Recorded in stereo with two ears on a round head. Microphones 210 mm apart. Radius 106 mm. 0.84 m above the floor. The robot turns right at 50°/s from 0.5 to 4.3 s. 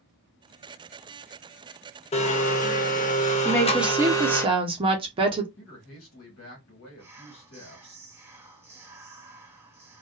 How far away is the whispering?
About 0.9 m.